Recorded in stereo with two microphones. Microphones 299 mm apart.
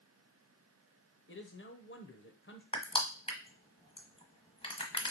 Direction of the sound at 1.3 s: 40° left (ahead or behind).